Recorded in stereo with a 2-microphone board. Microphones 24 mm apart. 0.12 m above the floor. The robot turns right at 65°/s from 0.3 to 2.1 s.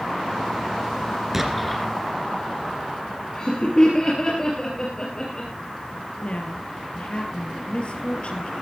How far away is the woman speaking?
About 2.5 m.